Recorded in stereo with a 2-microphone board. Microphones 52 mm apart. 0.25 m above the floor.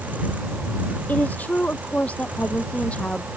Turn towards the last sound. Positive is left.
turn(degrees=20)  # may be behind; listen again after turning